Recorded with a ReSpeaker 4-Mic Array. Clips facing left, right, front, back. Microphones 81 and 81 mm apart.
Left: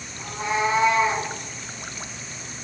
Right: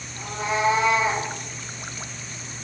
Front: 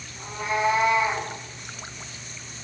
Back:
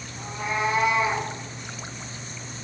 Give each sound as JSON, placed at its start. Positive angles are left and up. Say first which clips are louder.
{"t": 0.2, "sound": "a cat meowing", "louder": "even, front 2 dB", "azimuth_deg": -100, "distance_m": 2.5}